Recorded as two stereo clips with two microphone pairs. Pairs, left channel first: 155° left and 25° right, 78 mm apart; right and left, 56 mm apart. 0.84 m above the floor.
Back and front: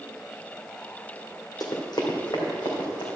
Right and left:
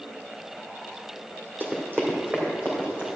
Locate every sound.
1.6 s running footsteps: 140° left, 1.7 m; by 3.1 s 150° left, 3.5 m